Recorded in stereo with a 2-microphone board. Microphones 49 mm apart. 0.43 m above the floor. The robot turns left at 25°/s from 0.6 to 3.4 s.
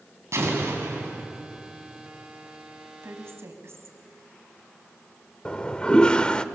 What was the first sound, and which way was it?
An explosion, 70° right (ahead or behind).